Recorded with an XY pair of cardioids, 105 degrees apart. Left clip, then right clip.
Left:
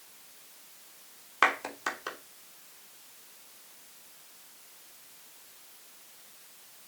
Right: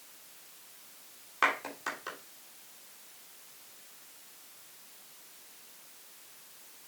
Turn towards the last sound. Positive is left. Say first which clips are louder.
# left 3 dB
turn(degrees=35)